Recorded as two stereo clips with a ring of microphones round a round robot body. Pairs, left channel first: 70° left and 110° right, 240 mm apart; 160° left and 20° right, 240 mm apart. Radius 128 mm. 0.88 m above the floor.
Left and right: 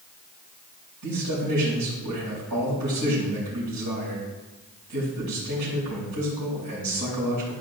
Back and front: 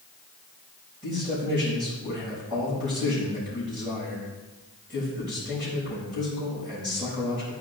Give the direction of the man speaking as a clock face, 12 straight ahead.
3 o'clock.